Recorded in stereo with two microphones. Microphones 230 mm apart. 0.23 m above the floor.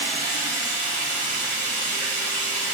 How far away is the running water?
About 4 m.